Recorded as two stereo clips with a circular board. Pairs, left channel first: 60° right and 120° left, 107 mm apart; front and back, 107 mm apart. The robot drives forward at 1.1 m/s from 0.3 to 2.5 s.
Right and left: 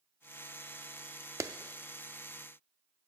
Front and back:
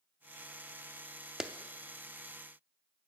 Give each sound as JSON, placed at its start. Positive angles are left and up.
{"t": 1.4, "sound": "a clap", "azimuth_deg": 100, "distance_m": 0.5}